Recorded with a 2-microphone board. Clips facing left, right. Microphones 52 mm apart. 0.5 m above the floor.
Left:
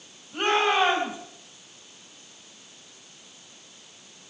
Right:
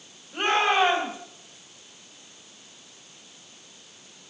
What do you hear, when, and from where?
0.3 s a shout: 10° right (ahead or behind), 3 m